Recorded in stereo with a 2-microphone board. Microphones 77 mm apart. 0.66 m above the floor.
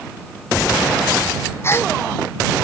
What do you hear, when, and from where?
1.6 s a gasp: 35° left (ahead or behind)